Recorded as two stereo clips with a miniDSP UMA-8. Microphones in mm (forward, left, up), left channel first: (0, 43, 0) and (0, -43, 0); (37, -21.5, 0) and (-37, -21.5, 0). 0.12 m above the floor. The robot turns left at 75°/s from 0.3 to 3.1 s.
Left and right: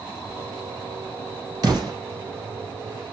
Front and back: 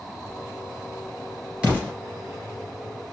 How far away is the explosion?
About 2.5 m.